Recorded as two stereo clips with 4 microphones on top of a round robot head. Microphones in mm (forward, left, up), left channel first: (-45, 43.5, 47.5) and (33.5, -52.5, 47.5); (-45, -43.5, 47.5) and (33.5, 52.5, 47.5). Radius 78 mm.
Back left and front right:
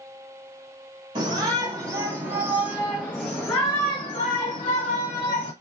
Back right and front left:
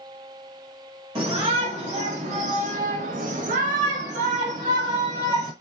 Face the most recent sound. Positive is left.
turn(degrees=105)